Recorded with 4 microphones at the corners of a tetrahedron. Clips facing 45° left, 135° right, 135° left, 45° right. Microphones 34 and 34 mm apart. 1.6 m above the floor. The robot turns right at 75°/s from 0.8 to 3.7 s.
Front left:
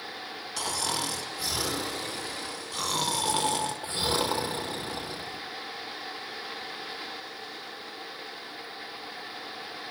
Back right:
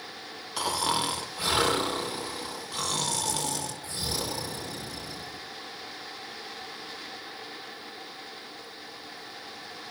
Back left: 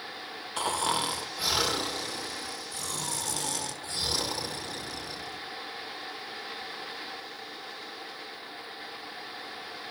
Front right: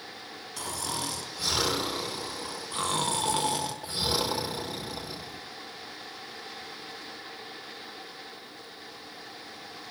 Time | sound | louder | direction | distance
0.6 | snoring | back right 4 dB, back left 6 dB | 165° left | 1.6 m